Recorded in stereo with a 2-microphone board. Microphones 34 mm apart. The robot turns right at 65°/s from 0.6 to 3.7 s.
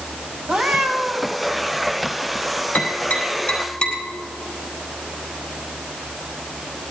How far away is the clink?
I don't hear a clink.